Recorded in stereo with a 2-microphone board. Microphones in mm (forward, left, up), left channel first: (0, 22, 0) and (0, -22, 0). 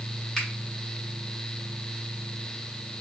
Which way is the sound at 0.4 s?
10° left (ahead or behind).